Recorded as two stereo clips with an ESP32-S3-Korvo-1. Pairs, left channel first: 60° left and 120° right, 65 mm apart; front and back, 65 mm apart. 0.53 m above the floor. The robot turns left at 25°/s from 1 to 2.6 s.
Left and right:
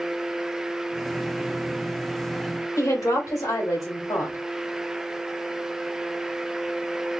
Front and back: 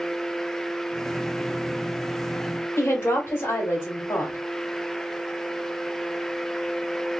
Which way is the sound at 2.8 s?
45° left.